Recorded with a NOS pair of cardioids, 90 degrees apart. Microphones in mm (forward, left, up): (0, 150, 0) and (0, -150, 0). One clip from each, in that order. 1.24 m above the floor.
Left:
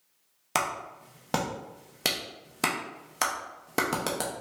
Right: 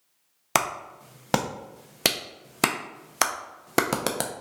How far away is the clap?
About 0.6 m.